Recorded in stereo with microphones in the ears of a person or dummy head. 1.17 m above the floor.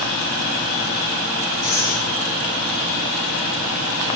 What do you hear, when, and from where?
1.6 s breathing: 60° left (ahead or behind), 1.3 m